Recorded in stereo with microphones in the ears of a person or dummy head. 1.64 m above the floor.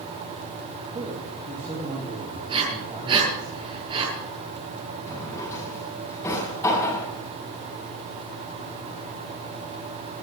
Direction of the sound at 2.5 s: 30° right (ahead or behind).